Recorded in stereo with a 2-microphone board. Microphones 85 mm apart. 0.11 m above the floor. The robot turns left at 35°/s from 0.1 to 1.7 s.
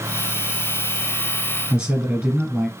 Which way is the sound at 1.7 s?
15° right (ahead or behind).